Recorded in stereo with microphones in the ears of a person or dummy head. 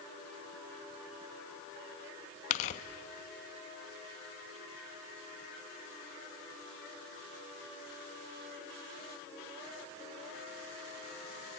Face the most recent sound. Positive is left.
turn(degrees=40)  # may be behind; listen again after turning